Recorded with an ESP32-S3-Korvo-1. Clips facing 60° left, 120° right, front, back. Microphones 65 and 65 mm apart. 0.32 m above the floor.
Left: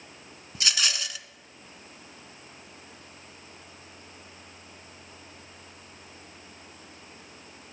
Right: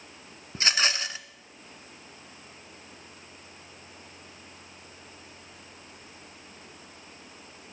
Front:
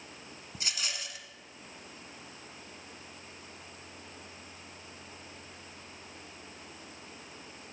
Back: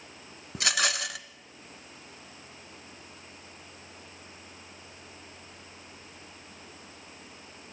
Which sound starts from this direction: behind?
A rattle, at 0.6 s.